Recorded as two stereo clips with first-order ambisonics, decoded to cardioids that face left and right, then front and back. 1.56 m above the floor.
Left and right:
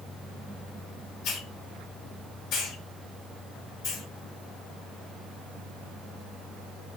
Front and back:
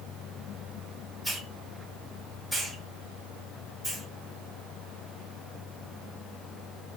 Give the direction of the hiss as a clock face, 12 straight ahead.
9 o'clock.